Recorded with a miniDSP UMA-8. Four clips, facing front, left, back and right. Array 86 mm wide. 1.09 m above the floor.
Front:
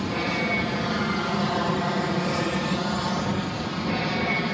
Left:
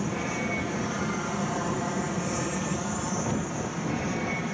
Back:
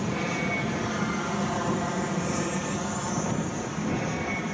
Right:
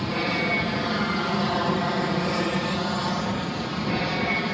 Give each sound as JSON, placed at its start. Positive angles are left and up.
{"t": 0.0, "sound": "an aircraft", "azimuth_deg": -65}